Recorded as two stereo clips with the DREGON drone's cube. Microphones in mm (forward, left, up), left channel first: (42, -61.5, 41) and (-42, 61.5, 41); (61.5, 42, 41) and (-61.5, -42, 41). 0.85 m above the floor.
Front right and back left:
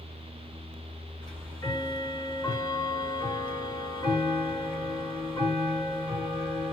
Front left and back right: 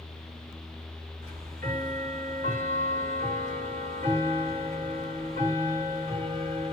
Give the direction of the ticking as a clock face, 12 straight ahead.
4 o'clock.